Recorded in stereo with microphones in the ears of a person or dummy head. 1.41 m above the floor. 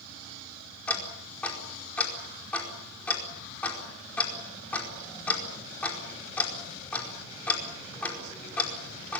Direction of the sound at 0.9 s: 15° left (ahead or behind).